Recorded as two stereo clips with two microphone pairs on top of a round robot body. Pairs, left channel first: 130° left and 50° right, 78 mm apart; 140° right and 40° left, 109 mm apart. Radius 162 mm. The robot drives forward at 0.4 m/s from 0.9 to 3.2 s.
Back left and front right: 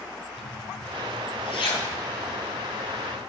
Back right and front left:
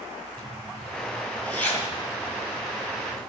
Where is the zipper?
135° left, 3 m; by 3.2 s 145° left, 3.5 m.